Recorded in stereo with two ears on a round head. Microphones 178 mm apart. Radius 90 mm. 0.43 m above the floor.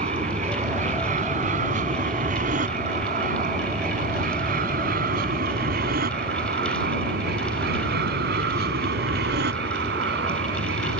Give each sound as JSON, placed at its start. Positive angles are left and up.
{"t": 0.0, "sound": "an aircraft", "side_deg": -35}